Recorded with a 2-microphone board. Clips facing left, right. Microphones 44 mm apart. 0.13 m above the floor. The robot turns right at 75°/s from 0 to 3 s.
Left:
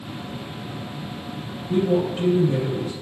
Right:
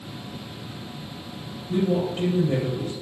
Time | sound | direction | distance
1.7 | a woman speaking | 160° left | 3.5 m